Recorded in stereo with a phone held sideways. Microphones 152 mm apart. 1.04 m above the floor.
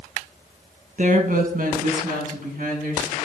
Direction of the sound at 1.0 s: 55° right (ahead or behind).